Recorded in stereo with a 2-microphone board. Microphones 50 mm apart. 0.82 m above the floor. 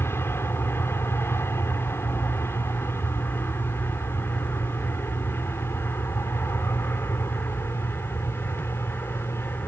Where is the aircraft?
55° left (ahead or behind); by 9.7 s 60° left (ahead or behind).